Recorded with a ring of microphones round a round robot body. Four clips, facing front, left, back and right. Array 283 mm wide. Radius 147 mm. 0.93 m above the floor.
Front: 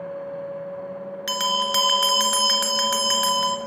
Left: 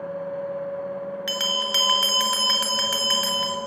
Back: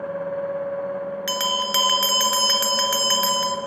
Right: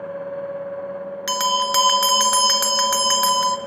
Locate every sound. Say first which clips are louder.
1.3 s a bell: right 8 dB, front 3 dB; 90° right, 1.3 m